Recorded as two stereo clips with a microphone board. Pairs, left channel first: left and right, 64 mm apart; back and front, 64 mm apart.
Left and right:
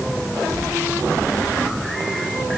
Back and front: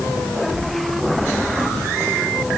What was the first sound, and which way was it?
Only background noise.